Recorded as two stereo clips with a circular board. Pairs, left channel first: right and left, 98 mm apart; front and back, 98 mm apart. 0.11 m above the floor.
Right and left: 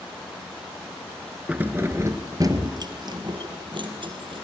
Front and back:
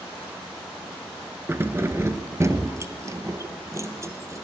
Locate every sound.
1.5 s keys jangling: 145° left, 1.2 m; by 4.4 s 120° left, 3 m